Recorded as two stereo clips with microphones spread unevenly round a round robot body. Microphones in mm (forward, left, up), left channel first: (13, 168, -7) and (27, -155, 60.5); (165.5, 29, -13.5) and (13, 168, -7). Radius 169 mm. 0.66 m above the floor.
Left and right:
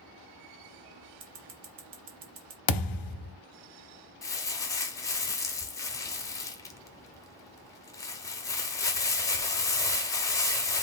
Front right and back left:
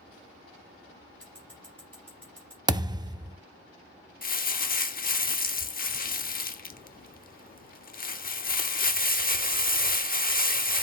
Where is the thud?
65° left, 0.6 m.